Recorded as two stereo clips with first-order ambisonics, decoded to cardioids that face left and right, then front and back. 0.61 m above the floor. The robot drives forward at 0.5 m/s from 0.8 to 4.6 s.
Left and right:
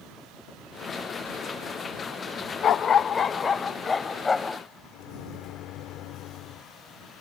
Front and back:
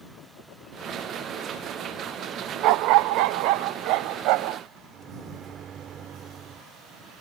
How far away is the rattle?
I don't hear a rattle.